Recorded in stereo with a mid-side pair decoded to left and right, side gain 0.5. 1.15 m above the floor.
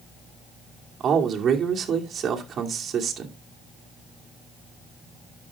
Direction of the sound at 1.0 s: 45° right.